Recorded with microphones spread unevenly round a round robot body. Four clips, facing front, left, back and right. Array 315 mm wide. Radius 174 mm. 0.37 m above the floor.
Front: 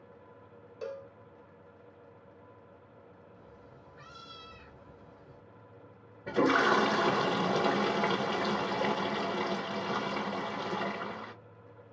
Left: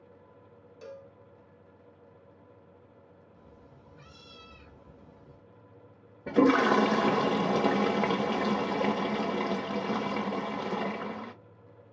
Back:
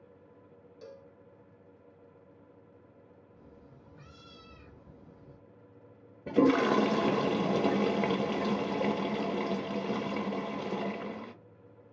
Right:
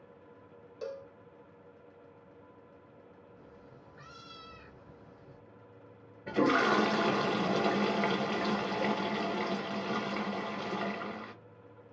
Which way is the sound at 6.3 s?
155° left.